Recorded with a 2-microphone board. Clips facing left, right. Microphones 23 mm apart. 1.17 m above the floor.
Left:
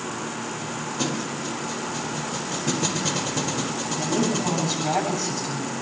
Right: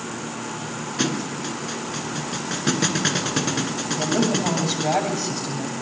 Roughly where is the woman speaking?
Right.